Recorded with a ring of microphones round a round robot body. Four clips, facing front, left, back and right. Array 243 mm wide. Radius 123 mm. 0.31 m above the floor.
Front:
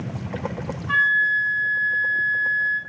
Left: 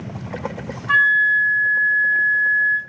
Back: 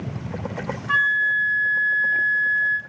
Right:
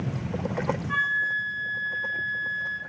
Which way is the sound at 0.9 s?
100° left.